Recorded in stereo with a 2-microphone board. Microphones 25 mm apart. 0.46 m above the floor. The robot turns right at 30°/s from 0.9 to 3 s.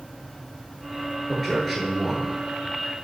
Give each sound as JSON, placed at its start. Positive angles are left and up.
{"t": 1.3, "sound": "a man speaking", "azimuth_deg": 165, "distance_m": 9.5}